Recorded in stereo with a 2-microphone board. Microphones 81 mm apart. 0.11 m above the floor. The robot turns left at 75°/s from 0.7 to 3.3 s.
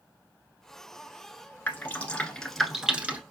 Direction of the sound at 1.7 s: 25° left (ahead or behind).